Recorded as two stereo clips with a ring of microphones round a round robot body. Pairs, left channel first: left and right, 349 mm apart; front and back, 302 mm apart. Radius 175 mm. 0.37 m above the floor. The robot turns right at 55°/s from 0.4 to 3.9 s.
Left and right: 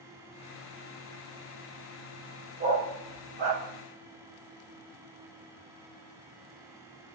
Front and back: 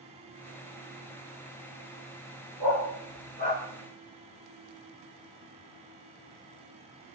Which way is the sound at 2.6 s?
160° right.